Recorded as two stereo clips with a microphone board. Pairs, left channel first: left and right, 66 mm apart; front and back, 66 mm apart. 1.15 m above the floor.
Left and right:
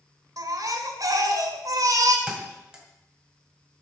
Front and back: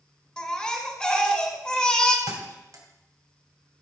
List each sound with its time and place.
0.4 s a baby crying: 75° right, 1.5 m
2.3 s a thud: 165° right, 2 m